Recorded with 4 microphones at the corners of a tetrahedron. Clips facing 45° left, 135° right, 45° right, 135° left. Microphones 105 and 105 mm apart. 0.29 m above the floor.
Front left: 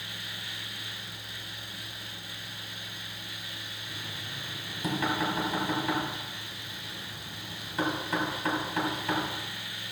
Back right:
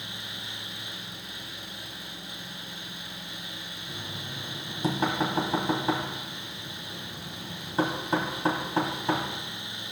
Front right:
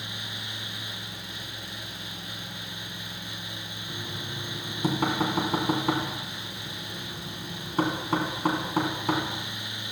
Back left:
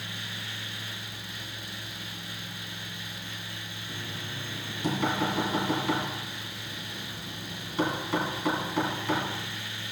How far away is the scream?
No scream in this recording.